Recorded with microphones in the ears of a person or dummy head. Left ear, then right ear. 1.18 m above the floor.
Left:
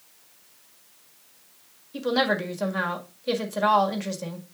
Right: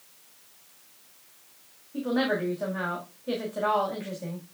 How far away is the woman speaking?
About 1.7 m.